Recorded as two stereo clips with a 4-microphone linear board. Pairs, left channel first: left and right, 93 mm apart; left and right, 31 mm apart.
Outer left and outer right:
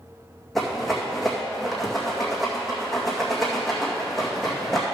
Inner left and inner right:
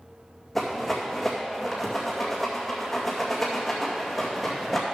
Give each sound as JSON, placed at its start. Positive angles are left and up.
{"t": 0.6, "sound": "a rattle", "side_deg": 0, "distance_m": 2.0}